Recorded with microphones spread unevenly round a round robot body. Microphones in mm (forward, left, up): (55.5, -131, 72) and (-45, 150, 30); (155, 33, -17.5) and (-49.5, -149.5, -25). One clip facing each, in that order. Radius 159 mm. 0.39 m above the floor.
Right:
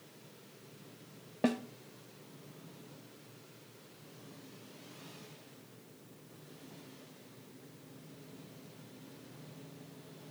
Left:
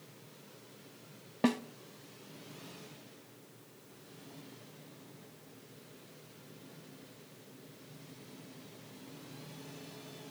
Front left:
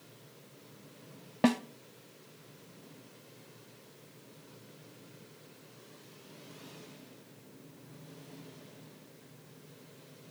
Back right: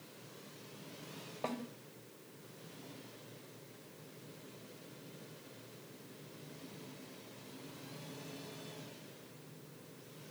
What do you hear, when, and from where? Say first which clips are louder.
1.4 s a snare drum: left 2 dB, front left 15 dB; 30° left, 0.9 m